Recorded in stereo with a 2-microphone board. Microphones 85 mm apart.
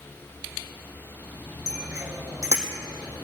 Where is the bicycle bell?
40° right (ahead or behind), 3.5 m.